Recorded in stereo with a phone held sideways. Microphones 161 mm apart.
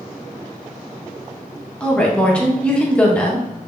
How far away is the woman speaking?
About 1.1 m.